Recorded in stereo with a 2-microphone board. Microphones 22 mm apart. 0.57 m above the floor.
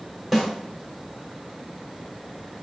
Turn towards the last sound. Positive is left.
turn(degrees=5)  # may be behind; listen again after turning